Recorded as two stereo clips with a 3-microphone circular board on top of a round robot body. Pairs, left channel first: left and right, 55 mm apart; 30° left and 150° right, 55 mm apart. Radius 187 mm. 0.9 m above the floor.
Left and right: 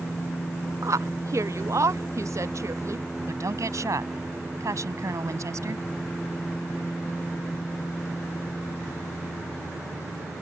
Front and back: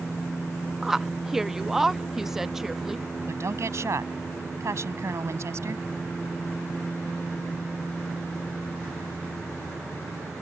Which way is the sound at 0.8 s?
65° right.